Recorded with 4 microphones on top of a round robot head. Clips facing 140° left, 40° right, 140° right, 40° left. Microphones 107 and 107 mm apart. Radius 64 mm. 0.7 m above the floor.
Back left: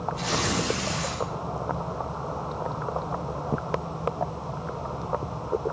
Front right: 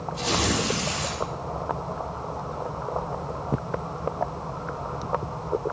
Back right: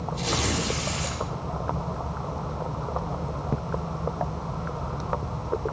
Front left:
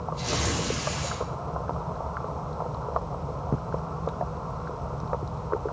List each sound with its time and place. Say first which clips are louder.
0.1 s tearing paper: front right 6 dB, back right 2 dB; 100° right, 8.5 m